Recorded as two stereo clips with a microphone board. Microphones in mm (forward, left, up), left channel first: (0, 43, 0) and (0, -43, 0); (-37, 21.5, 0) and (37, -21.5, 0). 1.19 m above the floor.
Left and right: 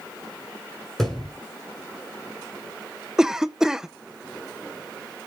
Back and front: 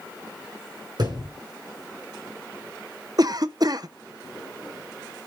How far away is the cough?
About 0.7 m.